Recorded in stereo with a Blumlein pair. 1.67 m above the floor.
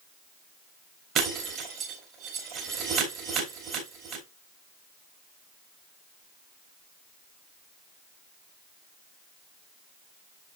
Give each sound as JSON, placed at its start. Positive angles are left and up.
{"t": 1.1, "sound": "breaking glass", "azimuth_deg": -30, "distance_m": 2.5}